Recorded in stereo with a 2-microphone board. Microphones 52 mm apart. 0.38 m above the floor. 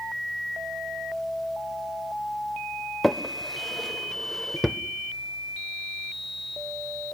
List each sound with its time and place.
3.0 s a drawer: 5° left (ahead or behind), 0.7 m